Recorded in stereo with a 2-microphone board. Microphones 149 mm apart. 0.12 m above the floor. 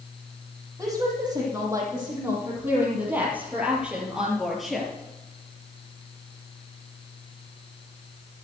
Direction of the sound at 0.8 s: 20° right (ahead or behind).